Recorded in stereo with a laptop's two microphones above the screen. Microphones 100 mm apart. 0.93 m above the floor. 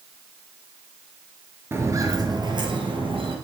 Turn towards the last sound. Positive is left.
turn(degrees=-60)  # may be behind; listen again after turning